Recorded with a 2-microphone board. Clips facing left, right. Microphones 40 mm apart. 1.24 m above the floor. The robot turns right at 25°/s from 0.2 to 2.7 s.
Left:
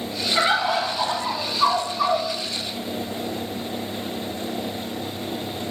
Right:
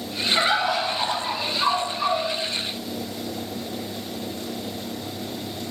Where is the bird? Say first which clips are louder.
Left 2 dB; straight ahead, 0.8 m; by 2.3 s 45° left, 0.8 m.